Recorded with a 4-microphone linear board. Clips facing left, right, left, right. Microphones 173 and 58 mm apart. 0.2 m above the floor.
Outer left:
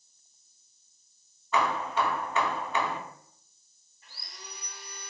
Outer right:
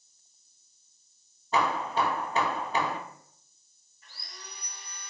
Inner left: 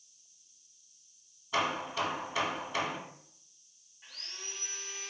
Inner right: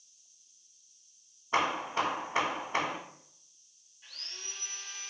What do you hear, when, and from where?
1.5 s hammering: 35° right (ahead or behind), 0.5 m
4.0 s sawing: 30° left (ahead or behind), 1.3 m